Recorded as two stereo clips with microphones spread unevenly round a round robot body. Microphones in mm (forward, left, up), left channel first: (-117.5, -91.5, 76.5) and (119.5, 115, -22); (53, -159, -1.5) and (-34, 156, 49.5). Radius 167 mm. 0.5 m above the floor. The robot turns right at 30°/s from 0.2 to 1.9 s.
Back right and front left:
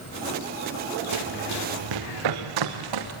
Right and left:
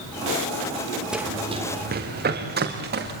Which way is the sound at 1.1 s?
20° left.